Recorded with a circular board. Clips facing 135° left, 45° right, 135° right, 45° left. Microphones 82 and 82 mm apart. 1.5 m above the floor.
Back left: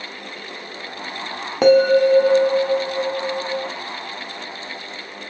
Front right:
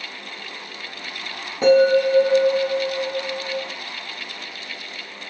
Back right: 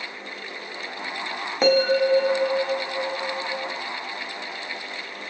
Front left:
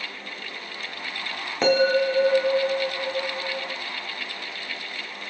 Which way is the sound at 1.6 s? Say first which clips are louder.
Back left 2 dB, back right 1 dB; 140° left.